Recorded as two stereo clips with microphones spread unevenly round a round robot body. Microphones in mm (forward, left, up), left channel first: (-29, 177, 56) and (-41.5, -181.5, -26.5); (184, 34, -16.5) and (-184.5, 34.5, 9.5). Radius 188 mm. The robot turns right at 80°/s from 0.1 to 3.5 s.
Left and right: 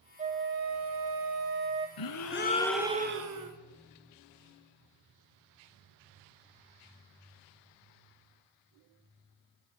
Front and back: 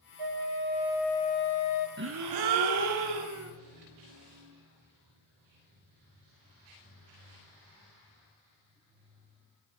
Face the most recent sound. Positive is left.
turn(degrees=-120)